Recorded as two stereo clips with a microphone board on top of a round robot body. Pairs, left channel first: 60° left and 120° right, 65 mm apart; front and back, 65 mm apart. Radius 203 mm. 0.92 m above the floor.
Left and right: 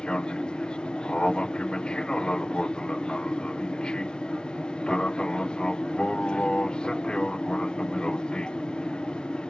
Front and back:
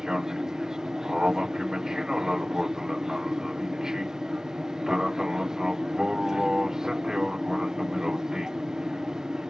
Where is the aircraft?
115° left.